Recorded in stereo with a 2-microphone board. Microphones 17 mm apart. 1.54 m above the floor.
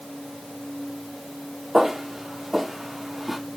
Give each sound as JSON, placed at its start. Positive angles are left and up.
{"t": 1.7, "sound": "footsteps", "side_deg": -20, "distance_m": 1.7}